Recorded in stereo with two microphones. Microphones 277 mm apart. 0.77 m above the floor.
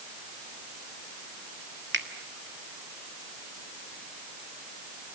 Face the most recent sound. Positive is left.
turn(degrees=-40)  # may be behind; listen again after turning